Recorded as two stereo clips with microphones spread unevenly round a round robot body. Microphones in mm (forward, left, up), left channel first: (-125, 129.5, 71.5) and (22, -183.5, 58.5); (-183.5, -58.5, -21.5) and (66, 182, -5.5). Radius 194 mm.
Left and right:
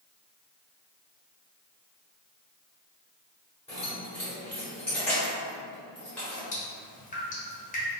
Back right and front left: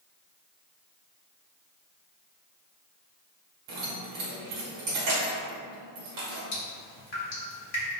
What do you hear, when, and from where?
3.7 s keys jangling: 25° left, 1.0 m
6.5 s dripping: straight behind, 1.1 m